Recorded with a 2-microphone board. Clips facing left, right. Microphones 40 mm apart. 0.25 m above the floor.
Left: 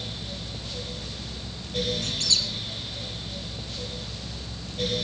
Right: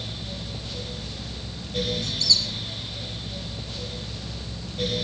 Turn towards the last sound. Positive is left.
turn(degrees=60)  # may be behind; listen again after turning